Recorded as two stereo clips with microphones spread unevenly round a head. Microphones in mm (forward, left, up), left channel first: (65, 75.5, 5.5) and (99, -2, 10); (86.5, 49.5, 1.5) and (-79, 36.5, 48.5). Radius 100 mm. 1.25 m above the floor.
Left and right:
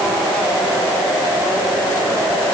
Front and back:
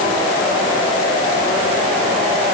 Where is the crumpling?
No crumpling in this recording.